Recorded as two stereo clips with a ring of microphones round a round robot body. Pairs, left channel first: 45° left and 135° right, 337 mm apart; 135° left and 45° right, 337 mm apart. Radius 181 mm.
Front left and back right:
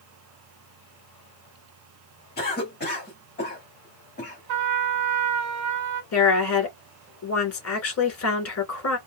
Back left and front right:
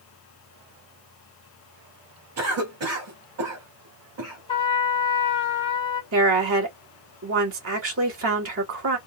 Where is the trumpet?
150° right, 1.4 m.